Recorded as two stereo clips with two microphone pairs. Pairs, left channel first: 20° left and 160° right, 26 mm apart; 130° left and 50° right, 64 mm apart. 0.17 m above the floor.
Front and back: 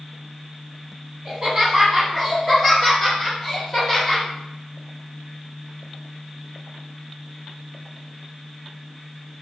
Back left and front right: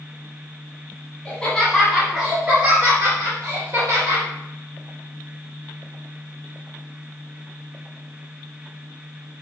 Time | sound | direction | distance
1.2 | laughter | 170° left | 1.1 m